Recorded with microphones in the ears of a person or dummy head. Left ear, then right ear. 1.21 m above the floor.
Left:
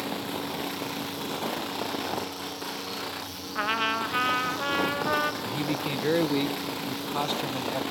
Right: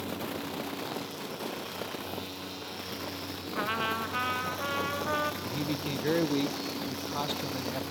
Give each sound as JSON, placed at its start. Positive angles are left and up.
{"t": 3.5, "sound": "a trumpet", "side_deg": 15, "distance_m": 0.7}
{"t": 5.4, "sound": "a man speaking", "side_deg": 15, "distance_m": 0.7}